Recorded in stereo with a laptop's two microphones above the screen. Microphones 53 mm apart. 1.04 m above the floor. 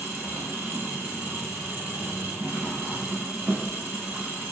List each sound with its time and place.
0.0 s an engine running: 40° right (ahead or behind), 0.9 m